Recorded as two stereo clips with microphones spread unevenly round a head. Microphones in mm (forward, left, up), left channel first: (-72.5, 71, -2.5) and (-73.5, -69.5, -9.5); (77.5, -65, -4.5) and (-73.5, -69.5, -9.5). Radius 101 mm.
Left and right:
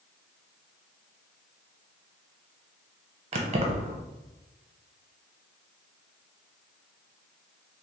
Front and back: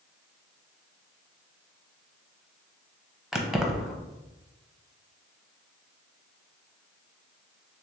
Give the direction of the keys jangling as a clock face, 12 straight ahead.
3 o'clock.